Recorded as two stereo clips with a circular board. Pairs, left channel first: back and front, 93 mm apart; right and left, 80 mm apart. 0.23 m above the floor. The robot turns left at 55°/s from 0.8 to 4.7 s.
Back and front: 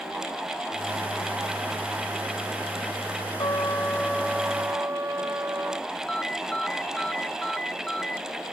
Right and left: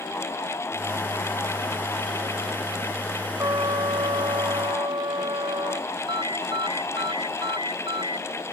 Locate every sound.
3.4 s a trumpet: 135° left; by 5.9 s 65° left
6.1 s a ringtone: 100° left